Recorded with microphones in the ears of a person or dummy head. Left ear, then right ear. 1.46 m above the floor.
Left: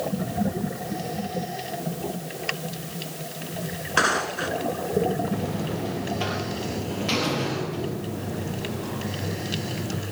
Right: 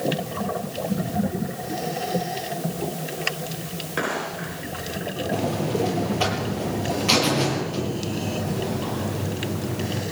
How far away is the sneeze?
I don't hear a sneeze.